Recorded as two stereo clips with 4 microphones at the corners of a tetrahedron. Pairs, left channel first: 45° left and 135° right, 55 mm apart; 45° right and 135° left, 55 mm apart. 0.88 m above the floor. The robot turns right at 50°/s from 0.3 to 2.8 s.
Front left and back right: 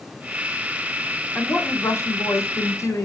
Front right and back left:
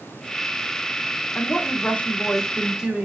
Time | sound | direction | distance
1.4 | a woman speaking | 15° right | 1.6 m